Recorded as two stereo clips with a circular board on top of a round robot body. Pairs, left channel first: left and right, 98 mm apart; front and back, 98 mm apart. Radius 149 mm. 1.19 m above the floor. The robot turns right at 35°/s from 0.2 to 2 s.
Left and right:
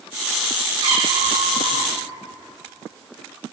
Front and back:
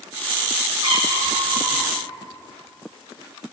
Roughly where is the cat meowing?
Behind right.